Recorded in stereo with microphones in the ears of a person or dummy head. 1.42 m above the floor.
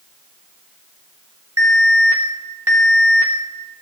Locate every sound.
1.6 s an alarm: 15° right (ahead or behind), 3 m